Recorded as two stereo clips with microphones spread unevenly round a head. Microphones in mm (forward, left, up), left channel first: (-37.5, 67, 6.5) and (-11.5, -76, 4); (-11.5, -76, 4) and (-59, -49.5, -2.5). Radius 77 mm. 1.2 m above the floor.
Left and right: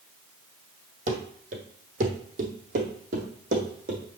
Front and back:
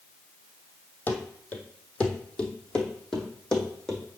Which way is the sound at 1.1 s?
60° right.